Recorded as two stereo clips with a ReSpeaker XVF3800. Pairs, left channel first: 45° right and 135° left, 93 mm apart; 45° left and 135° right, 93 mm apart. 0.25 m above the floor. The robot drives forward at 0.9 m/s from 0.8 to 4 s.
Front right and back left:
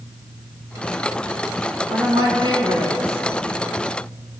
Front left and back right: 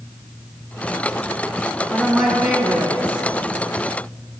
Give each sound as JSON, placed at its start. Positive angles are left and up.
{"t": 1.9, "sound": "a woman speaking", "azimuth_deg": 130, "distance_m": 2.0}